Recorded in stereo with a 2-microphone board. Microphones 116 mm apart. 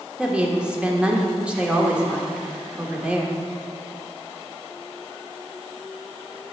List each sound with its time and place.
0.2 s a woman speaking: 10° right (ahead or behind), 1.0 m